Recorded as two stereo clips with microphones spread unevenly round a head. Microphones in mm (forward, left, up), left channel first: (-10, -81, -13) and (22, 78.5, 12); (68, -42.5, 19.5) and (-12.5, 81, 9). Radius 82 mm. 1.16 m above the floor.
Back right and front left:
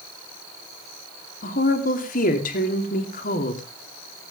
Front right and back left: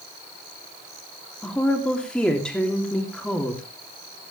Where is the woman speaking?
140° right, 3 m.